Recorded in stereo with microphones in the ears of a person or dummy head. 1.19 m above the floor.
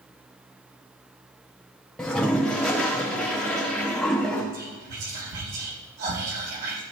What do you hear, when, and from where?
2.0 s a toilet flushing: centre (ahead or behind), 1.4 m
4.5 s whispering: 60° right (ahead or behind), 5.5 m